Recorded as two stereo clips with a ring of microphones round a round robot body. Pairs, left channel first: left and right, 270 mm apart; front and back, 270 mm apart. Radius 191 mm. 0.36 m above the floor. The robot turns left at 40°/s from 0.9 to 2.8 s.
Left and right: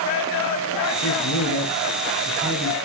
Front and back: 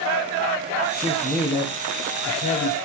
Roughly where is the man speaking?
Left.